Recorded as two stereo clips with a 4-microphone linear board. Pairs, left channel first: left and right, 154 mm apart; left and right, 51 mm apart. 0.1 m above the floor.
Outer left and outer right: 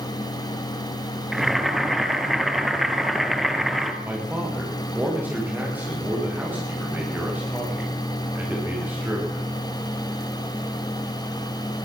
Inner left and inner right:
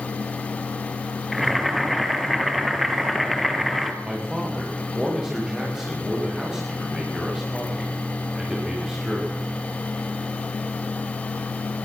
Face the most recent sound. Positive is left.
turn(degrees=-10)  # may be behind; listen again after turning